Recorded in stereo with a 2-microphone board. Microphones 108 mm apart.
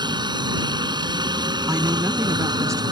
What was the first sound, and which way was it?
A helicopter, 45° right (ahead or behind).